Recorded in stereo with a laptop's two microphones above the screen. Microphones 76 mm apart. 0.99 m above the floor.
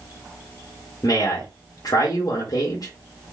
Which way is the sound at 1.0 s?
60° left (ahead or behind).